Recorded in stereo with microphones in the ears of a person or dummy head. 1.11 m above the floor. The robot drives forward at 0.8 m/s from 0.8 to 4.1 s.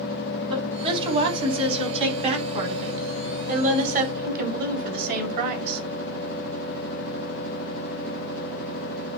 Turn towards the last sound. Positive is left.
turn(degrees=-50)  # may be behind; listen again after turning